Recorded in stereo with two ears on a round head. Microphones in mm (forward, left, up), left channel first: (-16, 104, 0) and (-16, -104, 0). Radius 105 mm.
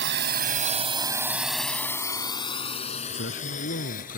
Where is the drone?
55° right (ahead or behind); by 4.2 s 40° left (ahead or behind).